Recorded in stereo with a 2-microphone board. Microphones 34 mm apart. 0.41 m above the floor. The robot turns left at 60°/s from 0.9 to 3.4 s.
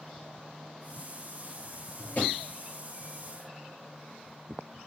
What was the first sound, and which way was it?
A drawer, 75° left (ahead or behind).